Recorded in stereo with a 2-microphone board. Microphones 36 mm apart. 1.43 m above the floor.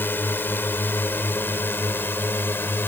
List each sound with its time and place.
0.0 s a drone: 70° left (ahead or behind); by 2.9 s 75° left (ahead or behind)